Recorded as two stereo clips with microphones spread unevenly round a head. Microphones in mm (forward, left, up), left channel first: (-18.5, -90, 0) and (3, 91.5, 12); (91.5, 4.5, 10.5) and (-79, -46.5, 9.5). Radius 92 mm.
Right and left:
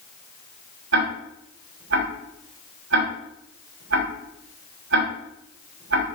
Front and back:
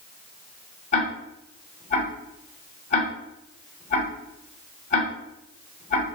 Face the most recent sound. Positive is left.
turn(degrees=70)